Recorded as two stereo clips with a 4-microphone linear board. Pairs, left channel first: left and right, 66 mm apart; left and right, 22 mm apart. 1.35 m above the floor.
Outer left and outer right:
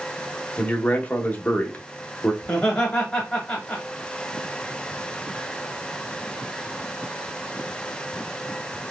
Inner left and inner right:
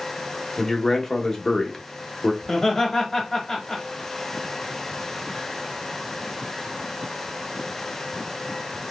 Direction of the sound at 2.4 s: 15° left (ahead or behind).